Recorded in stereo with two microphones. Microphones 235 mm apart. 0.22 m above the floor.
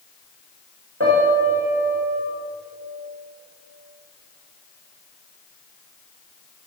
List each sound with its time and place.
1.0 s a piano: 65° right (ahead or behind), 10 m